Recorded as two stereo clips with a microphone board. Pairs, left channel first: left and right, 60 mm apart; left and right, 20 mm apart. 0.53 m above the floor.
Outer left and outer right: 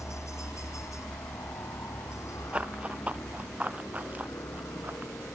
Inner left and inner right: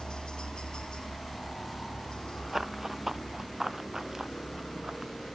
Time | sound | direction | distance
0.0 | a helicopter | 55° left (ahead or behind) | ?
2.5 | running footsteps | 20° right (ahead or behind) | ?